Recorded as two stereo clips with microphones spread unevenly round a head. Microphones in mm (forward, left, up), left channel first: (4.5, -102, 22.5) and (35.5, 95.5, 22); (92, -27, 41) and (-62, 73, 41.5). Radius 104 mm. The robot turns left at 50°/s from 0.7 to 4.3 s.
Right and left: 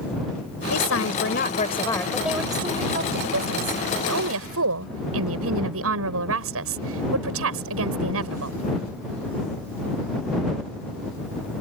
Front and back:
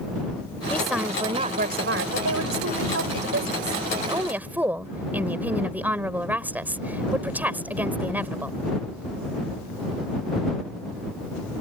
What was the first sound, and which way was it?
A woman speaking, 115° right.